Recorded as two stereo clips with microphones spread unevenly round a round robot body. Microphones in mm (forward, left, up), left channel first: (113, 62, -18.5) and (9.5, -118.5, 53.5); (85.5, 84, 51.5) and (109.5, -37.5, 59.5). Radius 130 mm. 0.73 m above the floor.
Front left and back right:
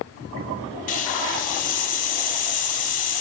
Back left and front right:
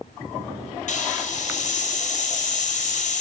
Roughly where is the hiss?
Left.